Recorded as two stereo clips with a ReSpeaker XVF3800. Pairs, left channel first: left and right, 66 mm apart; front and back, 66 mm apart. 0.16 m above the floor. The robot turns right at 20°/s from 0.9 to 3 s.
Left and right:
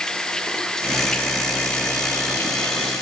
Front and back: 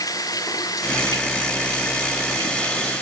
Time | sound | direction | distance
0.0 | running water | 10° left | ?